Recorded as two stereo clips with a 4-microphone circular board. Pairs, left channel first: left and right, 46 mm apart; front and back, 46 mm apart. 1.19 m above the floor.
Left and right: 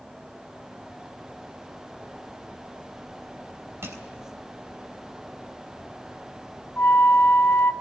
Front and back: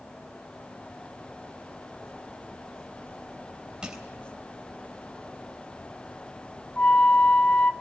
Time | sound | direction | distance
3.8 | crushing | 110° right | 3.5 m
6.8 | a flute | 55° left | 1.1 m